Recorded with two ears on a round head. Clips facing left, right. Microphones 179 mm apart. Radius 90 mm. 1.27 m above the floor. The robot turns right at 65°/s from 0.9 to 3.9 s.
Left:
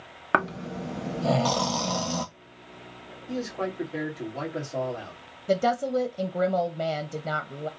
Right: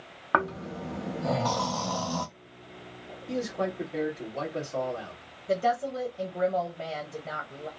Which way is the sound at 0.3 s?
60° left.